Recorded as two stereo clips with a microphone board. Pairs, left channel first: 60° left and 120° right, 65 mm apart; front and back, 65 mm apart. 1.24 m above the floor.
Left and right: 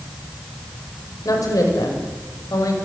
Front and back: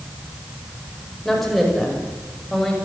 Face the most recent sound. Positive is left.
turn(degrees=85)